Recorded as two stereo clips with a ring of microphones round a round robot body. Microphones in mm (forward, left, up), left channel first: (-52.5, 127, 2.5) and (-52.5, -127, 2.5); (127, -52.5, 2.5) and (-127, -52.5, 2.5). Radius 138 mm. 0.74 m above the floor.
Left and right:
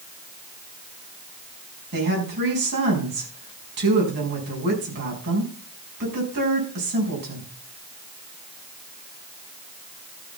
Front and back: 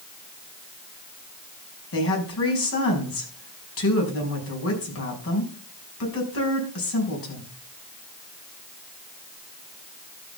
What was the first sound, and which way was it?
A woman speaking, 35° right.